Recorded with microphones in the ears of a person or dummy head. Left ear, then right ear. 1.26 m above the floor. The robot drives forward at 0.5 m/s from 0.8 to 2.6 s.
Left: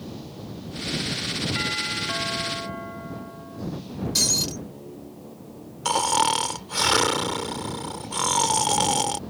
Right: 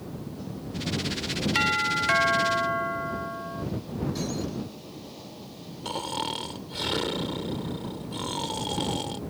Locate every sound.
1.6 s a doorbell: 55° right (ahead or behind); by 3.6 s 50° right (ahead or behind)
4.2 s breaking glass: 80° left
5.8 s snoring: 50° left (ahead or behind)